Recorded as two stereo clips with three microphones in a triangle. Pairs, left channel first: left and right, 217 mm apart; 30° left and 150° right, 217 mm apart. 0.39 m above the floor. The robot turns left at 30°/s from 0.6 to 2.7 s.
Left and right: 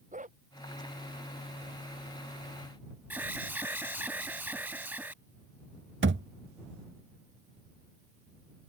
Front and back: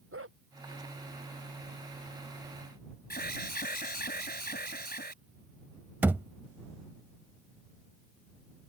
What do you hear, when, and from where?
0.1 s a dog barking: 145° right
3.1 s an alarm: 10° right
6.0 s a thud: 70° right